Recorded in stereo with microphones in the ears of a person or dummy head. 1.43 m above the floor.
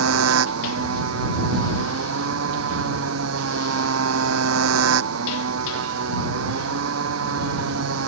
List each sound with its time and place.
0.0 s a motorcycle: 90° right